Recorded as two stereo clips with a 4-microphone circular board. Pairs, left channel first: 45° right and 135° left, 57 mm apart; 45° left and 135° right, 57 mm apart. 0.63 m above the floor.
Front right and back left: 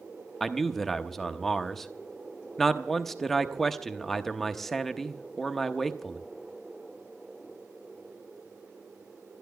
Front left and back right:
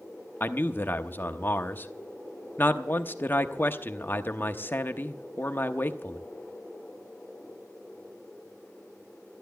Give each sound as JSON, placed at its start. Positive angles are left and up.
{"t": 0.4, "sound": "a man speaking", "azimuth_deg": 40, "distance_m": 0.9}